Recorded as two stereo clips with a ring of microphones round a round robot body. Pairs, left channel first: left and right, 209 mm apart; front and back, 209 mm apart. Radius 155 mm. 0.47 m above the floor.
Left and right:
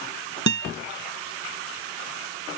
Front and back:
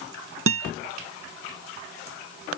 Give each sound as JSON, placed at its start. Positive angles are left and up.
{"t": 0.5, "sound": "a guitar", "azimuth_deg": -135}